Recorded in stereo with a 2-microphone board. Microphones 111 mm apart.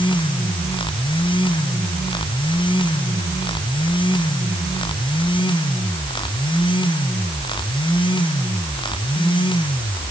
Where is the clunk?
I don't hear a clunk.